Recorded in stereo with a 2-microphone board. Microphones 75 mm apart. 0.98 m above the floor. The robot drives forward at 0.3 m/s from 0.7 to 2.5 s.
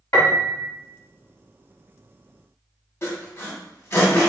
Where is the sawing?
35° left (ahead or behind), 1.5 m.